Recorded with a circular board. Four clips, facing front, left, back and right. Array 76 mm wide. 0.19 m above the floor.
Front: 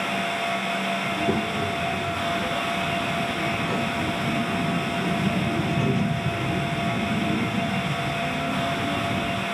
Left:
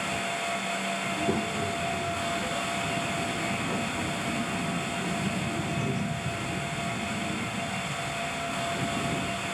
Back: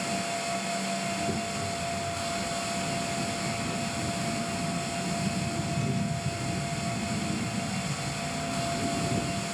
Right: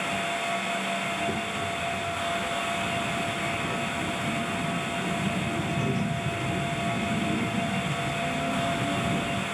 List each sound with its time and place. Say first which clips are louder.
1.1 s a child speaking: left 1 dB, front 6 dB; 25° left; by 9.5 s 50° right